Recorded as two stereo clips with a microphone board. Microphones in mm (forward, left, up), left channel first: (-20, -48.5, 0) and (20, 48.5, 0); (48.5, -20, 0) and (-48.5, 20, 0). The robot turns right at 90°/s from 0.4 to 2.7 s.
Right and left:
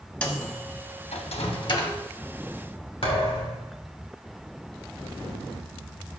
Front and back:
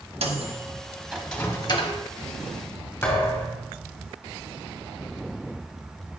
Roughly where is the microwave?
Behind.